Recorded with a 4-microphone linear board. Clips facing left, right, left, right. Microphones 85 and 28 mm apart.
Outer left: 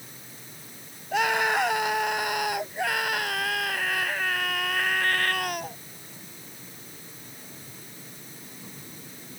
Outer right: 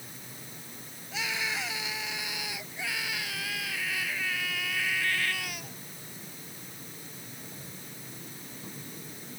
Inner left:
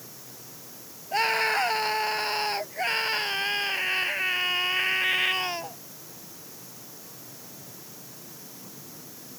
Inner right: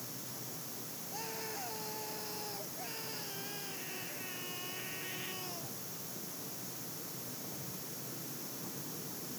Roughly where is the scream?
Left.